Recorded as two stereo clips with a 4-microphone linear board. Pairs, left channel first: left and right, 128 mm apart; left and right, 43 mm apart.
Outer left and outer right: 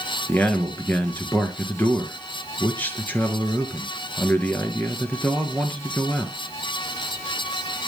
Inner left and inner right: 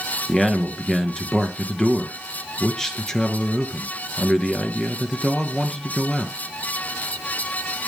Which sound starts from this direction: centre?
A man speaking, at 0.3 s.